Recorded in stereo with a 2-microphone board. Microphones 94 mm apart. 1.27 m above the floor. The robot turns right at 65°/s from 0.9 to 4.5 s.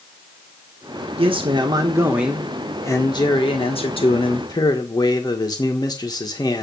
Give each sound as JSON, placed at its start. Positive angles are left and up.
{"t": 1.2, "sound": "a man speaking", "azimuth_deg": -80, "distance_m": 1.4}